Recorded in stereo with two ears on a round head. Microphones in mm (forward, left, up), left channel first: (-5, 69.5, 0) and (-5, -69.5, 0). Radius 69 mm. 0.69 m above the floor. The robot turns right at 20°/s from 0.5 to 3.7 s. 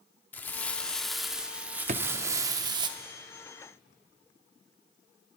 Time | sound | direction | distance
0.3 | crumpling | 165° left | 0.8 m
1.9 | a drawer | 50° right (ahead or behind) | 0.6 m